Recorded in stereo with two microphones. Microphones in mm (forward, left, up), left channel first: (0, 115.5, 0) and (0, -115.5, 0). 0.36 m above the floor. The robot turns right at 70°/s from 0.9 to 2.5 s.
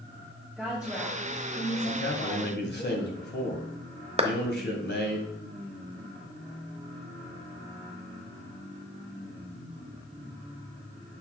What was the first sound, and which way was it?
A woman speaking, 5° right.